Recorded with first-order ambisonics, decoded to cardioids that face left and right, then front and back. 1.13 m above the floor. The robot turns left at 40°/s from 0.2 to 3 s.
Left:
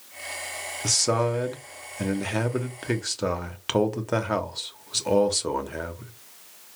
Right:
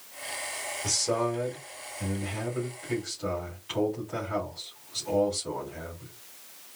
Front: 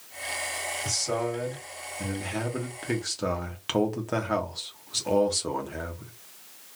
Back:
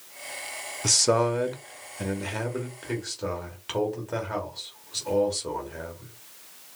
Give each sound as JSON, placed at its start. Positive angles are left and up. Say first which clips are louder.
{"t": 0.8, "sound": "a man speaking", "louder": "left 5 dB, back 9 dB", "azimuth_deg": 155, "distance_m": 0.9}